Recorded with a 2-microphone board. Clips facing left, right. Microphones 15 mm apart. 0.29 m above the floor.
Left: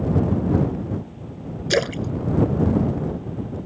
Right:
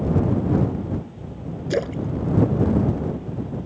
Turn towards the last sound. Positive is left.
turn(degrees=75)  # may be behind; listen again after turning